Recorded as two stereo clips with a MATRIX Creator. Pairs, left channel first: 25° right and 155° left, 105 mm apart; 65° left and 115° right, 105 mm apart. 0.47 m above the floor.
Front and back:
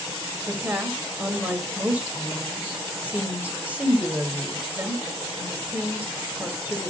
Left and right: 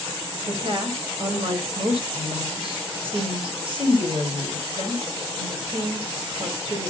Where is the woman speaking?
130° right, 2 m.